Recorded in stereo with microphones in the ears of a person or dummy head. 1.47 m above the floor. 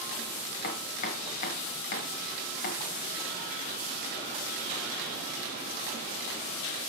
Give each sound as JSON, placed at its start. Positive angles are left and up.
{"t": 0.6, "sound": "chopping", "side_deg": 25, "distance_m": 1.4}